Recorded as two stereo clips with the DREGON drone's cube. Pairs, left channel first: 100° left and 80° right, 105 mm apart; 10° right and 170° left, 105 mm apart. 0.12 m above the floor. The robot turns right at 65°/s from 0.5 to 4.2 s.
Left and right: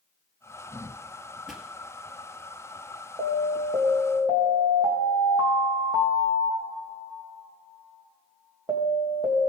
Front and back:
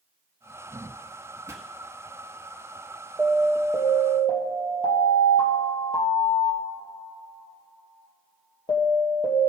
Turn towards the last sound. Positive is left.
turn(degrees=-50)